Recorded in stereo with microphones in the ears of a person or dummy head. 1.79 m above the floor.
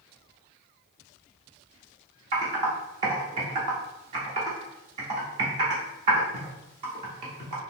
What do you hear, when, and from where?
2.3 s typing on a keyboard: 30° right (ahead or behind), 0.6 m